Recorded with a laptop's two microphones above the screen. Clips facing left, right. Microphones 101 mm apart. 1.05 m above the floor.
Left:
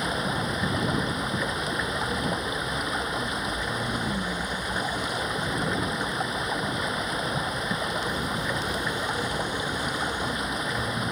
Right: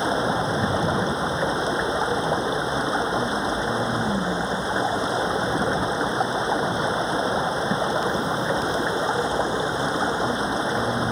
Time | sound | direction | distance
0.0 | running water | 30° right (ahead or behind) | ?